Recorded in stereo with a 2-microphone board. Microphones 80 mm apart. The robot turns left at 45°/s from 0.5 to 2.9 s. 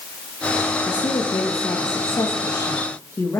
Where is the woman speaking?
120° left, 2.5 m; by 3.4 s 30° left, 2.5 m.